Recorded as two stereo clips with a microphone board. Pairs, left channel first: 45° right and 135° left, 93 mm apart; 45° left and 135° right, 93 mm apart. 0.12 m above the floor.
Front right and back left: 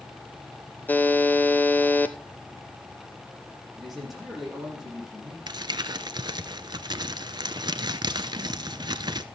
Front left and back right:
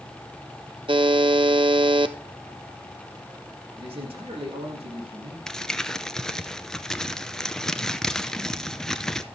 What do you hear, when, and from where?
0.9 s a buzzer: 115° right, 0.7 m
3.8 s a man speaking: 135° right, 6 m
5.5 s crumpling: 130° left, 0.6 m